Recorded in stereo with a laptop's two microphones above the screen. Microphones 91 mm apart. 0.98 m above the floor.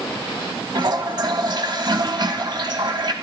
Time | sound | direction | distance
0.8 | a toilet flushing | 55° right (ahead or behind) | 1.1 m